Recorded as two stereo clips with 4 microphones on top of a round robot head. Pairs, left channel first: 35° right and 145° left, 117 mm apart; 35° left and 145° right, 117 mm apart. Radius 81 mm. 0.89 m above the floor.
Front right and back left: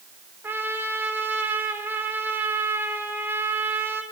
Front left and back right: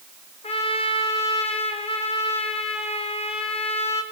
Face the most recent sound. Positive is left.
turn(degrees=70)